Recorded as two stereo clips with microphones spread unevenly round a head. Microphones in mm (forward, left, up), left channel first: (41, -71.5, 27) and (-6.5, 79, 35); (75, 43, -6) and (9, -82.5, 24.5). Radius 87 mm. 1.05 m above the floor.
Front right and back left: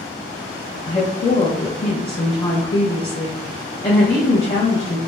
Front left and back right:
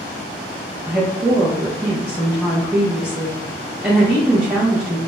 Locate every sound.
0.9 s a woman speaking: 30° right, 0.8 m